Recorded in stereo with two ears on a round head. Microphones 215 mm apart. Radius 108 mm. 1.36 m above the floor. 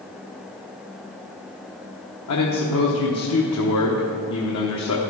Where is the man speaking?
70° left (ahead or behind), 1.1 m.